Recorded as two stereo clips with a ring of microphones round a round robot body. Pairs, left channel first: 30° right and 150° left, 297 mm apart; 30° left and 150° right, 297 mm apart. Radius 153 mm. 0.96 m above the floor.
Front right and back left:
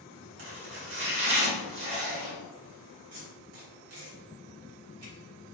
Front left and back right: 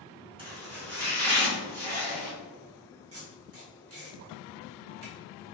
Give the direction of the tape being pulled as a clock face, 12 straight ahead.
6 o'clock.